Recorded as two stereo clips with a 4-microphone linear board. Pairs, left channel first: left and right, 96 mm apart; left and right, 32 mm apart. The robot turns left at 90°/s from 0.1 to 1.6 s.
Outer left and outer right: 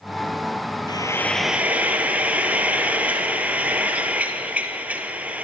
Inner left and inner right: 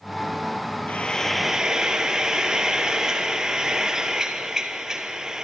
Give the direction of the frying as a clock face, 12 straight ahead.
10 o'clock.